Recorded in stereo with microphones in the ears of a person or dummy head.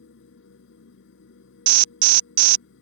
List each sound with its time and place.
0.0 s a machine running: 70° left (ahead or behind)
1.7 s an alarm: 40° right (ahead or behind)